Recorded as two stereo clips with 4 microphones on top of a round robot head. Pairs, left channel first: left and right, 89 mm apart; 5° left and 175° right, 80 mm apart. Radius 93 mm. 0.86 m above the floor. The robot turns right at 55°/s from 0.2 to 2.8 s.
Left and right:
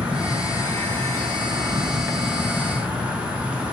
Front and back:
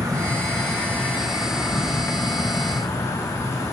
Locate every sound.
0.0 s an insect: 160° right, 1.0 m; by 3.8 s 20° right, 1.0 m